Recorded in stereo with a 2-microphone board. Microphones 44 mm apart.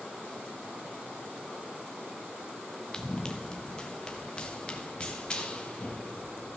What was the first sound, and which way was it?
Running footsteps, 15° left (ahead or behind).